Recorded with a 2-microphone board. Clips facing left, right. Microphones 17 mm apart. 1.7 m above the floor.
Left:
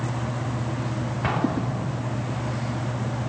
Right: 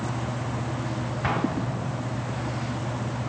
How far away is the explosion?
About 3.5 m.